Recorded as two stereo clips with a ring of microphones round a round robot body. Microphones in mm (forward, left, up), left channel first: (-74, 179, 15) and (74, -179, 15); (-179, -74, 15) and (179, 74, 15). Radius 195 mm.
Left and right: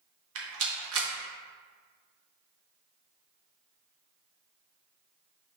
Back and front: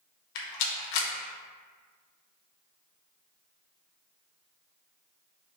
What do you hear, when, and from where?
0.3 s a rattle: 125° right, 0.8 m